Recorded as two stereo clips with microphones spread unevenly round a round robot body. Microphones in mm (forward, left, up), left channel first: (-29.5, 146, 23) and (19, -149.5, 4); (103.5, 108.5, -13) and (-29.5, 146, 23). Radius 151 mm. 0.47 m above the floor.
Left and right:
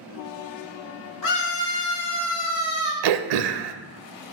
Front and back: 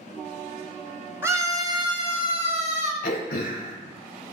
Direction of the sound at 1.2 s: 85° left.